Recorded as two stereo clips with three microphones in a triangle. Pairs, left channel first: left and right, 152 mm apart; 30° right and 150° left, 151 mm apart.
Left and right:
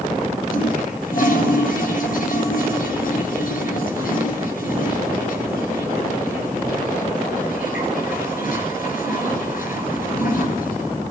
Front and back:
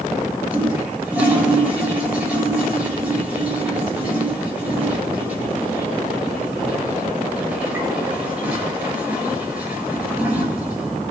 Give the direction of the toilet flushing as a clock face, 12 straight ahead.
10 o'clock.